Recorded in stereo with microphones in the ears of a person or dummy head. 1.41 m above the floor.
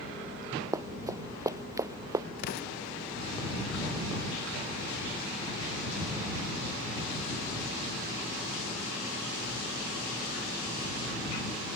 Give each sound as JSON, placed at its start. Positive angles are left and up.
{"t": 0.7, "sound": "running footsteps", "side_deg": -15}
{"t": 2.4, "sound": "an explosion", "side_deg": 50}